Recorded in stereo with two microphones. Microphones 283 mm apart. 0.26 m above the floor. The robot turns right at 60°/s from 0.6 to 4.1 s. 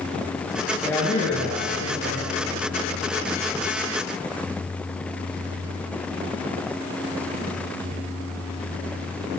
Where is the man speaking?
5° left, 6.5 m; by 2.3 s 90° left, 6.5 m.